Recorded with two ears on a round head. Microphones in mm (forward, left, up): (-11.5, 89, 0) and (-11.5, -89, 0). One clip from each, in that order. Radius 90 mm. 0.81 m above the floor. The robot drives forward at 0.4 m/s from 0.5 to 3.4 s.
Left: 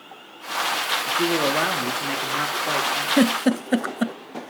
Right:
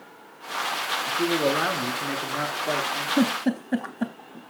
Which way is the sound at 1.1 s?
25° left (ahead or behind).